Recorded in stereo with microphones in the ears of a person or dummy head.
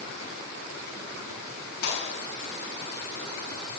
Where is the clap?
60° left (ahead or behind), 7.5 m.